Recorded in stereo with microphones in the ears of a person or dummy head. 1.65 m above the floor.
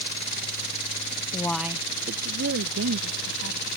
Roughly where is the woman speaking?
Left.